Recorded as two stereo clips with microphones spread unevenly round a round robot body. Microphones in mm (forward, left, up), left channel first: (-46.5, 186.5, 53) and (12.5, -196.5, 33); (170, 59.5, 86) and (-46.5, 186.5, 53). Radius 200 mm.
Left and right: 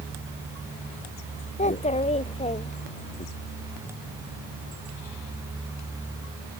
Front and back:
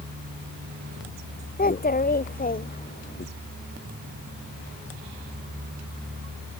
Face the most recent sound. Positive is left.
turn(degrees=20)